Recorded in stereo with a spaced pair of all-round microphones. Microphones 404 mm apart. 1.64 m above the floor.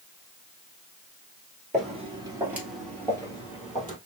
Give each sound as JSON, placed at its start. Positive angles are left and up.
{"t": 1.7, "sound": "footsteps", "side_deg": -20, "distance_m": 1.7}